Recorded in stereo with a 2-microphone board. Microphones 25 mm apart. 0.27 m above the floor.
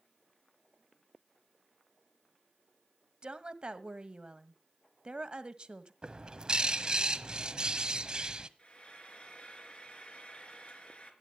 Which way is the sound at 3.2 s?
40° right (ahead or behind).